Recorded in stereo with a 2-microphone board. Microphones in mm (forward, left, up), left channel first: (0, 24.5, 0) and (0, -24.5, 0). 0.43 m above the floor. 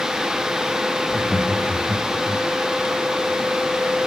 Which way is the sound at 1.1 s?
5° right (ahead or behind).